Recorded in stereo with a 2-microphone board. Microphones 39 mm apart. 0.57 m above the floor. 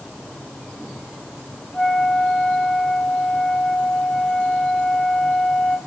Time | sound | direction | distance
1.7 | a flute | 15° left (ahead or behind) | 0.7 m